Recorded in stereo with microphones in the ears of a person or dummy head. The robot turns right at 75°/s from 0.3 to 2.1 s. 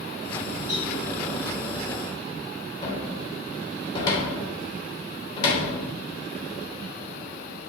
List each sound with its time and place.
0.7 s a cowbell: 85° right, 4 m; by 0.9 s 75° right (ahead or behind), 4 m
2.8 s a cupboard door: 35° left (ahead or behind), 3 m